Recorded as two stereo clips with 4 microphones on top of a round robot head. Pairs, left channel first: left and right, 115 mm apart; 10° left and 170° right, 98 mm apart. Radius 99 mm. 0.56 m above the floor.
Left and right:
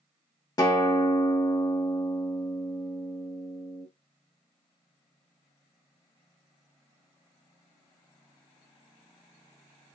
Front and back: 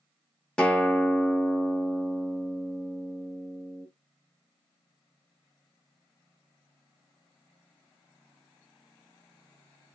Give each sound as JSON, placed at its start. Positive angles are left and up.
{"t": 0.6, "sound": "a guitar", "azimuth_deg": 85, "distance_m": 1.1}